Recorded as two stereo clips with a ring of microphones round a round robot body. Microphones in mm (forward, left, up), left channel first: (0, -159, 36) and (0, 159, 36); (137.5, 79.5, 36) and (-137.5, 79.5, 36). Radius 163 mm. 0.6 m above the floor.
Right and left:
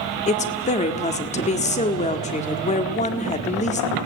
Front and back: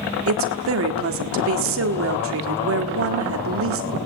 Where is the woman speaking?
155° right, 1.7 m.